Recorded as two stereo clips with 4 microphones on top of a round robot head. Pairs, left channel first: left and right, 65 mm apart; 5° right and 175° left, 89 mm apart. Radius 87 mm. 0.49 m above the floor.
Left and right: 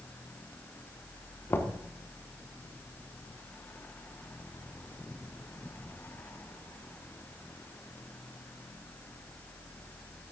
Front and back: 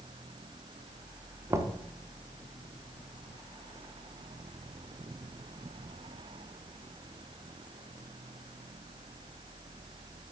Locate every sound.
1.5 s knocking: 130° left, 1.0 m